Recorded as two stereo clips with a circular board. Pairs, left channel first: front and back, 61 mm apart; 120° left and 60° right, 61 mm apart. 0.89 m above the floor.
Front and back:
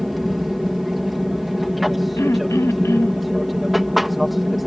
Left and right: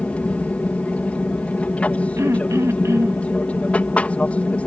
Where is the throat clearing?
30° right.